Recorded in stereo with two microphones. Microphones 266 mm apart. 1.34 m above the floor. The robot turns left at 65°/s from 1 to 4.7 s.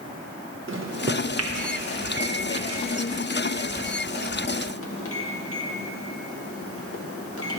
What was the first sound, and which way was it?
A microwave, 50° right (ahead or behind).